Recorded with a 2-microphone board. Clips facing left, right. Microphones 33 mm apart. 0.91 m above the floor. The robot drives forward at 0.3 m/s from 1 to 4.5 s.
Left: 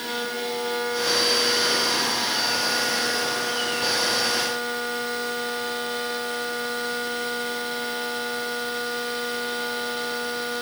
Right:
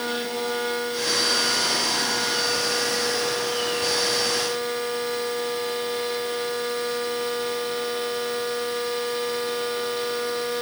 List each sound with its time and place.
Only background noise.